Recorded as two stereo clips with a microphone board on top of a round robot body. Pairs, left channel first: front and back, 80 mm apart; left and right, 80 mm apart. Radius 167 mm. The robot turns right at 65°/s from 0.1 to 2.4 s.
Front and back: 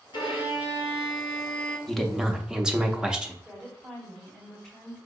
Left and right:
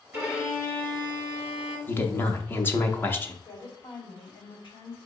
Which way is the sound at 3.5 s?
85° left.